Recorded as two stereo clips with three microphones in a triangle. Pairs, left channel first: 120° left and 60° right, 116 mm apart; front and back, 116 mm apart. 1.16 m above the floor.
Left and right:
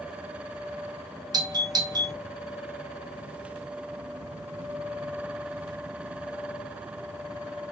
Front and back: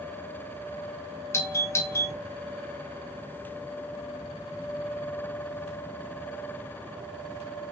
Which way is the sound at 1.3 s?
50° right.